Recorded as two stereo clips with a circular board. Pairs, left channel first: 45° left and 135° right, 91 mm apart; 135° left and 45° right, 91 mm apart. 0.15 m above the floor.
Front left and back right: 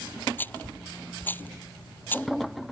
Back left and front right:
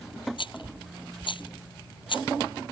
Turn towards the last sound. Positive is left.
turn(degrees=110)